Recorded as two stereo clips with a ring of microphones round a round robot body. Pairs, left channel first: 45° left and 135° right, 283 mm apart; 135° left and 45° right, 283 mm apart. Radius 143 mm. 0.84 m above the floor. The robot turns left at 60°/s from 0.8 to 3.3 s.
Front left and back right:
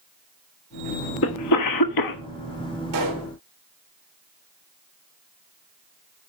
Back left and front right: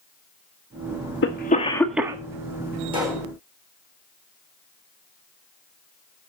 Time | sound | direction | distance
1.2 | a cough | 85° left | 1.3 m
2.9 | a pop | 120° right | 3.5 m